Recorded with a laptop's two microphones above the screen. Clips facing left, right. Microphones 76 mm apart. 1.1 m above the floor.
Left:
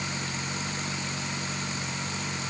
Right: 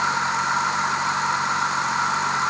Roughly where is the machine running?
Right.